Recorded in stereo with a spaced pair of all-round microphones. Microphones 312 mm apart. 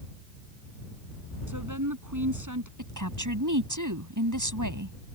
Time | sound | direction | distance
1.5 | a woman speaking | 75° right (ahead or behind) | ?
2.8 | a woman speaking | 80° right | ?